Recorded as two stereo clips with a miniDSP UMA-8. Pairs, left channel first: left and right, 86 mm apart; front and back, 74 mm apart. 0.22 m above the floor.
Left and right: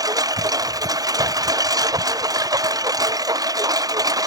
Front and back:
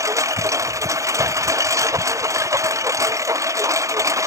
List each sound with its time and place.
0.0 s a lawn mower: 135° right